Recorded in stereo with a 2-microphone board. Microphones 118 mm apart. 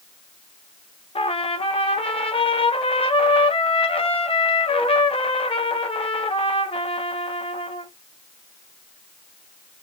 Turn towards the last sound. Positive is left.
turn(degrees=50)  # may be behind; listen again after turning